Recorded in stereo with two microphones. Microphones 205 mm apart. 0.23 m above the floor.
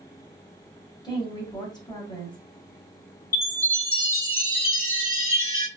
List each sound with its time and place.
1.0 s a woman speaking: 20° left (ahead or behind), 1.6 m
3.3 s a chime: 45° right (ahead or behind), 1.8 m